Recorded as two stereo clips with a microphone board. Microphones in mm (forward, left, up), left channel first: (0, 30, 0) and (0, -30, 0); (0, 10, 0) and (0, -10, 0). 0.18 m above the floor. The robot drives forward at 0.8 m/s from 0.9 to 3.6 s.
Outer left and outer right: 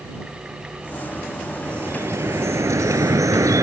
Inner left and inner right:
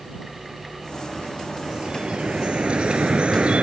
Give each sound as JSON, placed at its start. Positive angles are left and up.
{"t": 1.6, "sound": "dripping", "side_deg": -40}